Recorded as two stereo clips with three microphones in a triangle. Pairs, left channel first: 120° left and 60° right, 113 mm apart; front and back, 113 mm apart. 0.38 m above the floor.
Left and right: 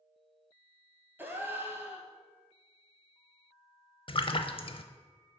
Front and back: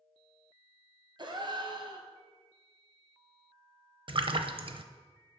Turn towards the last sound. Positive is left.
turn(degrees=150)